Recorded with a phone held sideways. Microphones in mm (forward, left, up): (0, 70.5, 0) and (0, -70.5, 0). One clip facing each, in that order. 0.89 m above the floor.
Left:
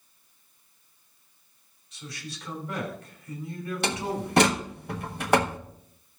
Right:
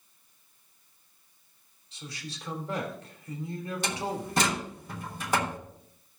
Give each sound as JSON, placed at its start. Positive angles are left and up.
{"t": 1.9, "sound": "a man speaking", "side_deg": -30, "distance_m": 3.0}
{"t": 3.8, "sound": "a door slam", "side_deg": 65, "distance_m": 1.1}